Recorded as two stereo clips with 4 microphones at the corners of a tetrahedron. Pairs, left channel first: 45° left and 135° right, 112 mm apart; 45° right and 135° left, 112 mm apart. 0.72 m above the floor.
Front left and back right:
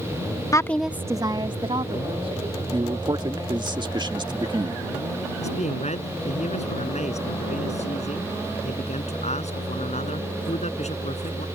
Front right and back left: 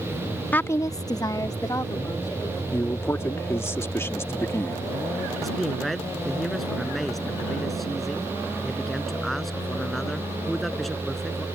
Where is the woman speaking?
15° left; by 2.6 s 105° right.